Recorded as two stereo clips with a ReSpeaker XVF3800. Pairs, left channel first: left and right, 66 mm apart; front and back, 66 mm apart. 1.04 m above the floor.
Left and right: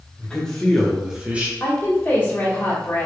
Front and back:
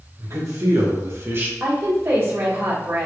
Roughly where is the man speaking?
Behind.